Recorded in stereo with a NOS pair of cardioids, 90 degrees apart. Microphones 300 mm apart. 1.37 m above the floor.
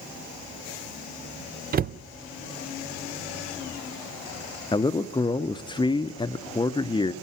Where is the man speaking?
15° left, 0.8 m.